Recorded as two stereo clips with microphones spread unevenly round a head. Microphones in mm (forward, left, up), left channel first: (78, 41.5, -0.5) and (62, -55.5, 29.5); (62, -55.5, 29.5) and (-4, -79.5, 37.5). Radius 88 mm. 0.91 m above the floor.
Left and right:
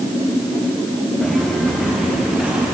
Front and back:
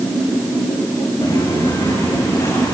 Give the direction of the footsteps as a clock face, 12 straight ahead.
12 o'clock.